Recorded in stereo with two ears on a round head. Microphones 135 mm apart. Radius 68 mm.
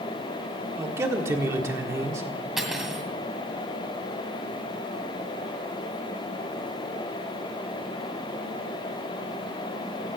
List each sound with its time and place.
0.8 s a man speaking: 15° right (ahead or behind), 1.4 m
2.6 s cutlery clinking: centre (ahead or behind), 2.0 m